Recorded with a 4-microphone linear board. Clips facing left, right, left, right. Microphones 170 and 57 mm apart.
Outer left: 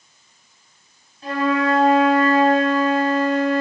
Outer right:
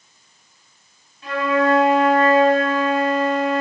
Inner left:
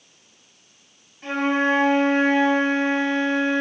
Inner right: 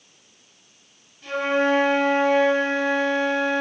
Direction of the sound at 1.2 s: 35° left (ahead or behind).